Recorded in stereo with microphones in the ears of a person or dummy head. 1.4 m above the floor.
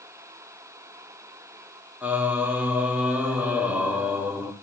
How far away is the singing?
About 1.4 m.